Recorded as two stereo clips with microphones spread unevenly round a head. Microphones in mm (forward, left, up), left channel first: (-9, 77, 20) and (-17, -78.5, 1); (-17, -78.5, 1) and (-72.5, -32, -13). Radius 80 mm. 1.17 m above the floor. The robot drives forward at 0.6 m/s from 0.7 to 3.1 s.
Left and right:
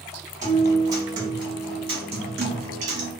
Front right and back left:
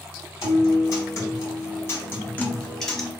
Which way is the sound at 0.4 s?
20° right.